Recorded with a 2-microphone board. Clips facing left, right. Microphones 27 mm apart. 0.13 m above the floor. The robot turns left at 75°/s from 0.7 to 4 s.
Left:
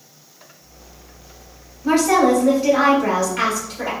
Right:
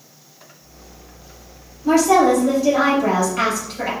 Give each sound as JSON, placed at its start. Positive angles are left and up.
{"t": 1.8, "sound": "a woman speaking", "azimuth_deg": 120, "distance_m": 1.8}